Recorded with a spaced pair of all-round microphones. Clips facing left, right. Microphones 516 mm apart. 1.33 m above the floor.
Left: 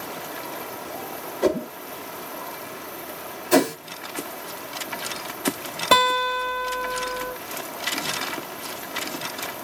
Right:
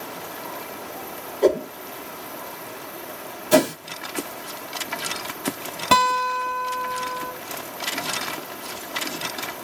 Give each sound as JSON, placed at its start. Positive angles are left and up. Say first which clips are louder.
{"t": 1.4, "sound": "a whoosh", "louder": "right 3 dB", "side_deg": 30, "distance_m": 0.8}
{"t": 3.5, "sound": "a whoosh", "louder": "even", "side_deg": -55, "distance_m": 2.5}
{"t": 5.9, "sound": "a guitar", "louder": "left 2 dB", "side_deg": -20, "distance_m": 3.0}